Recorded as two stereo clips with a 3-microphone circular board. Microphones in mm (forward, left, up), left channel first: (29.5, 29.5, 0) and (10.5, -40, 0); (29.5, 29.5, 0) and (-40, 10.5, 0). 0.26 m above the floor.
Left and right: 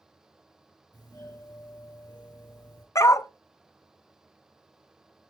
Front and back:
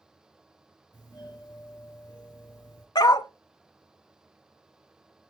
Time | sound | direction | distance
0.9 | a doorbell | 45° left | 6.5 m
3.0 | a dog barking | 30° left | 0.6 m